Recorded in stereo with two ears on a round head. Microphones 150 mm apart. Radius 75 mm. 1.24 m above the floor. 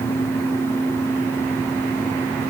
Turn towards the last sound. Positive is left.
No sound to turn to.